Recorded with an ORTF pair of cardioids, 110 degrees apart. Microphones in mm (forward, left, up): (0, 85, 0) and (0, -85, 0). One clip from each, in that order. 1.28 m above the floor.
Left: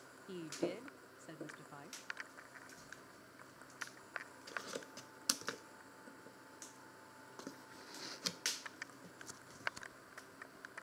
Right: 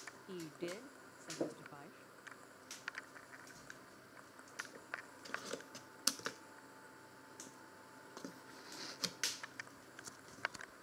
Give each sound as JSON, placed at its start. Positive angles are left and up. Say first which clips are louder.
{"t": 0.3, "sound": "a woman speaking", "louder": "left 5 dB", "azimuth_deg": 5, "distance_m": 0.9}